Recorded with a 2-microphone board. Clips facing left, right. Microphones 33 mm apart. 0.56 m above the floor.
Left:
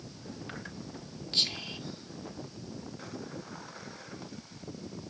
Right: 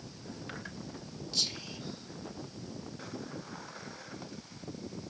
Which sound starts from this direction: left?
Whispering, at 1.3 s.